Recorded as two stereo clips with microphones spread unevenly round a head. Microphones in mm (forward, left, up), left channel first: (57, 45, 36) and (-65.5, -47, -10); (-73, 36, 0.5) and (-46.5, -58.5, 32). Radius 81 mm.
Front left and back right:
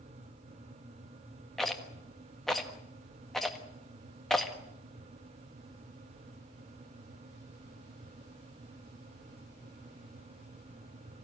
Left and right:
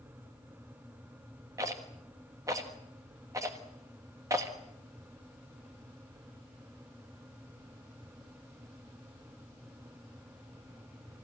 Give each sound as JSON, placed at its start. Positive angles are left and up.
{"t": 1.6, "sound": "a rattle", "azimuth_deg": -35, "distance_m": 1.4}